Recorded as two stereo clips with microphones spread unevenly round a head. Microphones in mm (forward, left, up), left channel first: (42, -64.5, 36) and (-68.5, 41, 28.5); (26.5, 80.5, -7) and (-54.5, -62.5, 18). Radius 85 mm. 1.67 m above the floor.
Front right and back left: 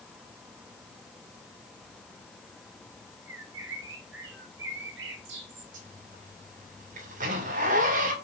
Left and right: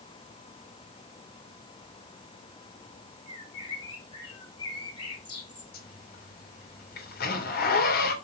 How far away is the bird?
About 3 m.